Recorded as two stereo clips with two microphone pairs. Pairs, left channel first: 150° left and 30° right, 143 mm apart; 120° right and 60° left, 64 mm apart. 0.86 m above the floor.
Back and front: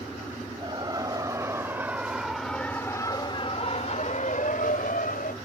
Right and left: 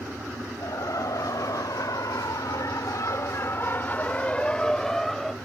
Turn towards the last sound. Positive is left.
turn(degrees=155)